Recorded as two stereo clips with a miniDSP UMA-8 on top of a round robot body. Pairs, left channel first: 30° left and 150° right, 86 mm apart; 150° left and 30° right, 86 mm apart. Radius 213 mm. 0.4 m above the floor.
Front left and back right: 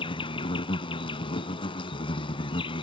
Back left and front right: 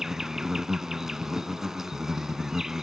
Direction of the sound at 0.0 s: 55° left.